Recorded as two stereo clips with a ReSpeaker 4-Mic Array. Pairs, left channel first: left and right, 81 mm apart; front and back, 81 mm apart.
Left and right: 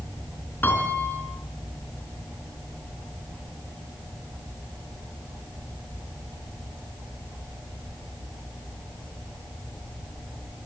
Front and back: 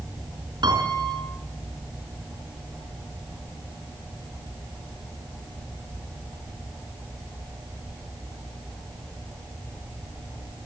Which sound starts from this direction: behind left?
A piano, at 0.6 s.